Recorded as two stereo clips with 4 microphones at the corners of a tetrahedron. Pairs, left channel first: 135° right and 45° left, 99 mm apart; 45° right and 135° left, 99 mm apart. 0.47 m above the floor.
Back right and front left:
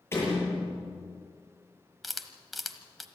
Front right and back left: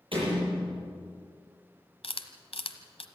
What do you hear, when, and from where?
0.1 s a door slam: 160° left, 10 m
2.0 s a camera shutter: 45° right, 1.3 m